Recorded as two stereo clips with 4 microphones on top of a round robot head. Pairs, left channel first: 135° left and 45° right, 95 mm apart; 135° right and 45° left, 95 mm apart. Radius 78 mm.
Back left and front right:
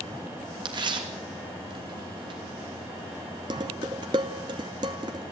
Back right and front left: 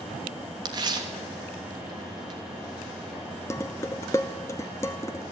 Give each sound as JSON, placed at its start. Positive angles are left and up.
{"t": 0.7, "sound": "tearing paper", "azimuth_deg": 0, "distance_m": 3.0}
{"t": 3.5, "sound": "dishes clattering", "azimuth_deg": -75, "distance_m": 0.9}